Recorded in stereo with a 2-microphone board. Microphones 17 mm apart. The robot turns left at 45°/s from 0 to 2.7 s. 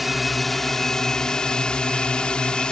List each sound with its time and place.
0.0 s a drone: 175° right; by 2.7 s 60° left